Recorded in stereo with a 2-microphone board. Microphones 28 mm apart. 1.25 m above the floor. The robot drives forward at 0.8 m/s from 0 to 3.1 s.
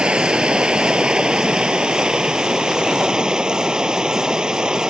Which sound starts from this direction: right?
Running water, at 0.0 s.